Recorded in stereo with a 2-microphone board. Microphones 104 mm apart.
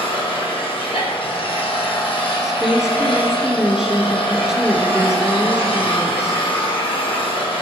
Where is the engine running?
60° left (ahead or behind), 3.5 m.